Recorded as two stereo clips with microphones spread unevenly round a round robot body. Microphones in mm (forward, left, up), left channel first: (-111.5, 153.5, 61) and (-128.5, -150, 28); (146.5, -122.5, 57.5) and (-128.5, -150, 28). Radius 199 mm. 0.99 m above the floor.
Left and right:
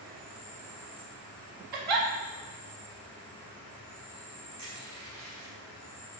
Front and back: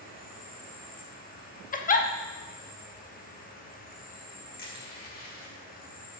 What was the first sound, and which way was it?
An insect, 55° right.